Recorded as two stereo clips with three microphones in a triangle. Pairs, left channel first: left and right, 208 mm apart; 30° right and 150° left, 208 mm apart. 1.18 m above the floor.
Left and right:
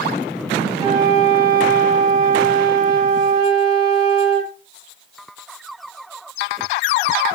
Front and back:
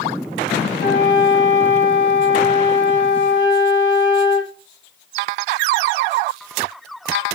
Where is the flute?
25° right, 1.8 m.